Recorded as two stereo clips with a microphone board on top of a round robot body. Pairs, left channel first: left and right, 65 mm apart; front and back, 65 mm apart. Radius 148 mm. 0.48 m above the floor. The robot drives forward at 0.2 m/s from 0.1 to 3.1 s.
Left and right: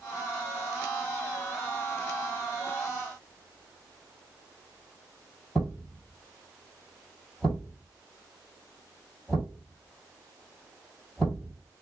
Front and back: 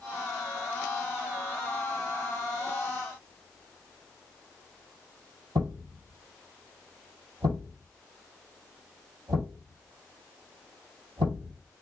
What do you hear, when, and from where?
5.5 s a thud: 170° left, 1.4 m